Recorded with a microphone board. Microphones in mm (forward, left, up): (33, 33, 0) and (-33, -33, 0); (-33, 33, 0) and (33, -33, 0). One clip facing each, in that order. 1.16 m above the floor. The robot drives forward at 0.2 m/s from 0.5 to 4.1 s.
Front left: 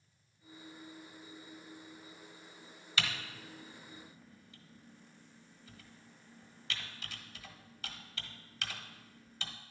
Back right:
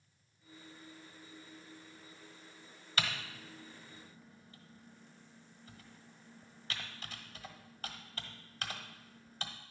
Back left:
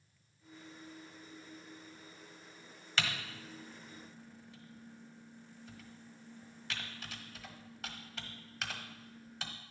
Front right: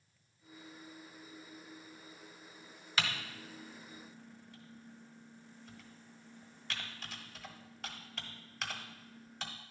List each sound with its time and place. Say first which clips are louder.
3.0 s typing on a keyboard: back right 1 dB, even; 125° right, 1.1 m; by 9.5 s 135° right, 1.2 m